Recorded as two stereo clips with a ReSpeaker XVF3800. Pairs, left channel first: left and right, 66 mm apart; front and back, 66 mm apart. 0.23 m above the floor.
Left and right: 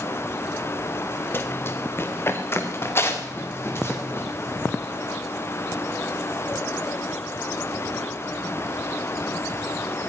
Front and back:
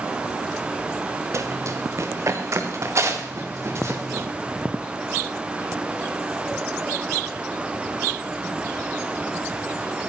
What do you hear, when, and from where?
1.3 s running footsteps: 140° left, 1.7 m